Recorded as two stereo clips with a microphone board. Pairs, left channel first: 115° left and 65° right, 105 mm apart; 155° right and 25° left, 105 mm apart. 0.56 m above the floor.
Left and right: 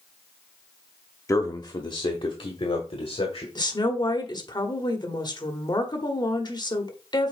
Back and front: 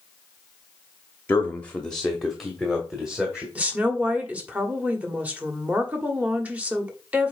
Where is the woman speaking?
95° left, 1.5 m.